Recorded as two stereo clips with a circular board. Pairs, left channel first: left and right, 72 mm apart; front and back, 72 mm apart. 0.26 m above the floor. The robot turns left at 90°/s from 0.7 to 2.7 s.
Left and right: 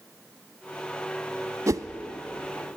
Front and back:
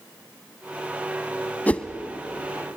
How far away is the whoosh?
About 0.8 m.